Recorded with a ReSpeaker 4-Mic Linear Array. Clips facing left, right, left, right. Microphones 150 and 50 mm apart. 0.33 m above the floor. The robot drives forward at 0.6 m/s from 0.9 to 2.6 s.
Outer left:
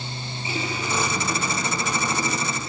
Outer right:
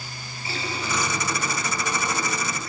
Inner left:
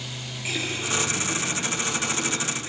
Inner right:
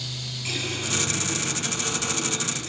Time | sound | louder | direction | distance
0.5 | a running tap | outer left 2 dB, inner left 2 dB | 20° left (ahead or behind) | 4 m